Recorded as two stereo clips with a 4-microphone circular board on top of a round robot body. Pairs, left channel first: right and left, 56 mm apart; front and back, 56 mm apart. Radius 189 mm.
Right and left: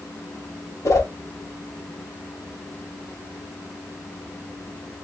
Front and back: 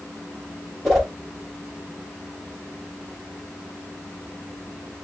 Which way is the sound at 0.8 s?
90° right.